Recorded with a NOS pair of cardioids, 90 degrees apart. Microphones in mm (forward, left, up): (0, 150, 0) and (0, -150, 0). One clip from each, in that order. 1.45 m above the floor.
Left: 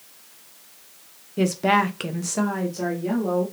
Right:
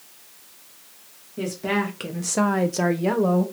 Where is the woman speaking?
45° left, 0.8 m; by 3.5 s 75° right, 0.9 m.